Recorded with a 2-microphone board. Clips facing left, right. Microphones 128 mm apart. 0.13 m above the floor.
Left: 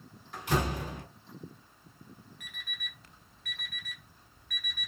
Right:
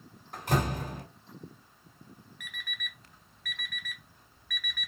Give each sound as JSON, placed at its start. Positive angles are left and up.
{"t": 0.3, "sound": "a door slam", "side_deg": -40, "distance_m": 1.1}
{"t": 2.4, "sound": "an alarm clock", "side_deg": 30, "distance_m": 0.8}